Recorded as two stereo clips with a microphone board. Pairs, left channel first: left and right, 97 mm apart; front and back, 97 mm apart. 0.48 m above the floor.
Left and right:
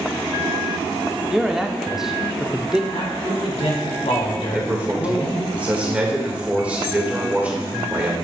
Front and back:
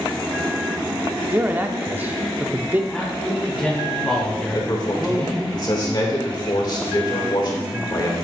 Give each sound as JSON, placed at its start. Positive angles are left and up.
{"t": 1.3, "sound": "a man speaking", "azimuth_deg": -165, "distance_m": 0.7}
{"t": 2.9, "sound": "a man speaking", "azimuth_deg": 80, "distance_m": 3.0}
{"t": 4.5, "sound": "a man speaking", "azimuth_deg": -20, "distance_m": 1.9}